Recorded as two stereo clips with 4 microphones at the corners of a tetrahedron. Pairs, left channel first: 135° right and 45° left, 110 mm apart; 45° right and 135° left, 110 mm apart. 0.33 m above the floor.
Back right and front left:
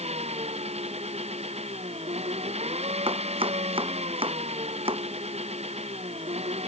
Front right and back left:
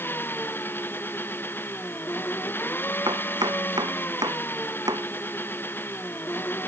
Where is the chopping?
80° left.